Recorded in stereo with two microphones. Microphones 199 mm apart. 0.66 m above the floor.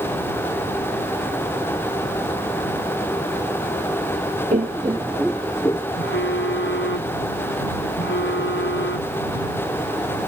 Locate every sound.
4.5 s laughter: 40° right (ahead or behind); by 5.8 s 20° left (ahead or behind)
6.0 s a phone buzzing: 85° left